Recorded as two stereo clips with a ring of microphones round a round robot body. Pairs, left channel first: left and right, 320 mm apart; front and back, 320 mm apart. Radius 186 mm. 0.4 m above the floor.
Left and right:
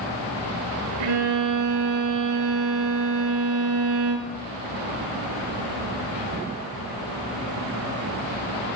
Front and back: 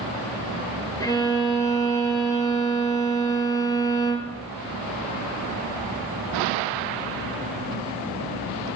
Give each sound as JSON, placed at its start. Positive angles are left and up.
{"t": 1.0, "sound": "a violin", "azimuth_deg": -80, "distance_m": 3.0}